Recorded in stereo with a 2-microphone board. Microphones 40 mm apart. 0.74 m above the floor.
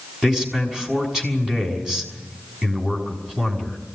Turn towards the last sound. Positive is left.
turn(degrees=-15)  # may be behind; listen again after turning